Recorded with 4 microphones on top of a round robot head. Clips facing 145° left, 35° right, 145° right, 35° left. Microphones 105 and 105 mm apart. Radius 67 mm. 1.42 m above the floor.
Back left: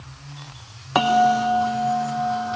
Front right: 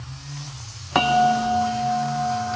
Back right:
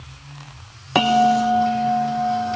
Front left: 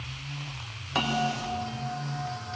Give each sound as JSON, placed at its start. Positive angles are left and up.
{"t": 0.9, "sound": "a bell", "azimuth_deg": -130, "distance_m": 0.9}